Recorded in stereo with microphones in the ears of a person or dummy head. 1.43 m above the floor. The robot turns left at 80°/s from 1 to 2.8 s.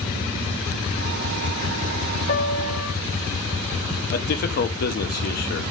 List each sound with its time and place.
2.3 s a piano: 140° left, 1.4 m; by 2.9 s 100° left, 1.4 m
4.1 s a man speaking: 50° left (ahead or behind), 1.3 m